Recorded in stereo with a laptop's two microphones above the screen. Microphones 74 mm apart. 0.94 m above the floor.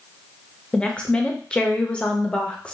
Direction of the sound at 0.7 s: 15° left (ahead or behind).